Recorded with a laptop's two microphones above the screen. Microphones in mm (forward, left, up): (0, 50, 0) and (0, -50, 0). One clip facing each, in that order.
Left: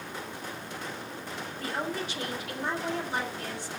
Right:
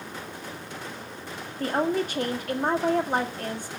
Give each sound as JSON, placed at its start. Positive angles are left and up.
{"t": 1.6, "sound": "a woman speaking", "side_deg": -45, "distance_m": 1.8}